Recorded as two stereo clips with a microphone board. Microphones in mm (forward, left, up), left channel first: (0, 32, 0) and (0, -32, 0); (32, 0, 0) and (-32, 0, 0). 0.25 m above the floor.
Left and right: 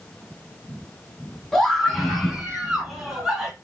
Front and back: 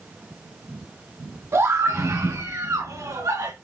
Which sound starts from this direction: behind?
A scream, at 1.5 s.